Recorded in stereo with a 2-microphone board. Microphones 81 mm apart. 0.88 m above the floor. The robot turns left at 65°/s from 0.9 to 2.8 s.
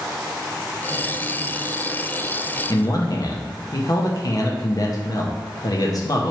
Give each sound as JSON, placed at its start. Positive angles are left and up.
{"t": 2.7, "sound": "a man speaking", "side_deg": 45, "distance_m": 0.7}